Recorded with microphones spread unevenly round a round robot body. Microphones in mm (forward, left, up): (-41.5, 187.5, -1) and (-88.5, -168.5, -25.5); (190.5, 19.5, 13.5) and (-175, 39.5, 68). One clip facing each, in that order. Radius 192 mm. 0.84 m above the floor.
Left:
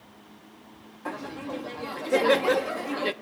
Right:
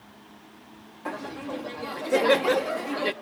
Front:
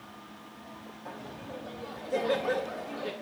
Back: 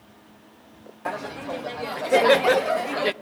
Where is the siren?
No siren in this recording.